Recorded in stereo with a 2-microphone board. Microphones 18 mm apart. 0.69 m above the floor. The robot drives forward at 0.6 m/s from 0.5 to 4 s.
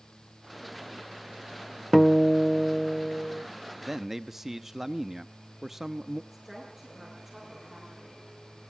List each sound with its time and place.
1.9 s a guitar: 20° left (ahead or behind), 0.8 m; by 3.4 s 10° left (ahead or behind), 1.6 m
3.8 s a man speaking: 20° right (ahead or behind), 0.8 m
6.3 s a woman speaking: 20° right (ahead or behind), 9 m